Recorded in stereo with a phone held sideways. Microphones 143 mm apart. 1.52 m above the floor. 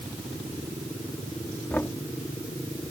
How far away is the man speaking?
I don't hear a man speaking.